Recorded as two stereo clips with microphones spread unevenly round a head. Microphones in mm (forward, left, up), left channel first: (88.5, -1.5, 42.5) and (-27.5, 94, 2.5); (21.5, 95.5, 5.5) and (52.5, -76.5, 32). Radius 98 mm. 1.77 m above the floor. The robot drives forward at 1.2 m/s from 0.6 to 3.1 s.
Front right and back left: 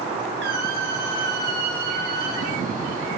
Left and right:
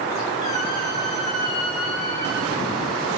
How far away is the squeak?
About 8.5 m.